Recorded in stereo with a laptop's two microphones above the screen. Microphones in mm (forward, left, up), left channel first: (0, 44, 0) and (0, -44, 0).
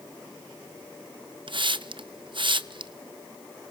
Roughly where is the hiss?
Right.